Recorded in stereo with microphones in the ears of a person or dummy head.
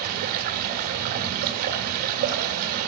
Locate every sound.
0.0 s running water: 50° right (ahead or behind), 1.6 m